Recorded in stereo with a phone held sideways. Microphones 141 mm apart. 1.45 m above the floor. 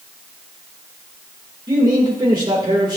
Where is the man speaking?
30° right (ahead or behind), 2 m.